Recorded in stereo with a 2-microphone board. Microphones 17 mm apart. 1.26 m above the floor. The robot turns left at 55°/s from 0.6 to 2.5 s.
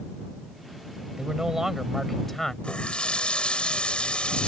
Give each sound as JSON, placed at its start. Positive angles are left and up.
{"t": 1.2, "sound": "a man speaking", "azimuth_deg": -130}
{"t": 2.6, "sound": "a running tap", "side_deg": 80}